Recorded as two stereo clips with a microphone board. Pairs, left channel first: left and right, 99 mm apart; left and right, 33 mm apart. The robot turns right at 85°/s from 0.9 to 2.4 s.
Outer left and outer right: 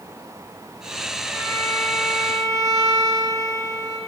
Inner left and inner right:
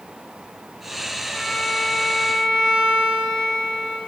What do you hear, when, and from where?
1.3 s a violin: 130° left, 2.5 m; by 4.0 s 135° right, 2.5 m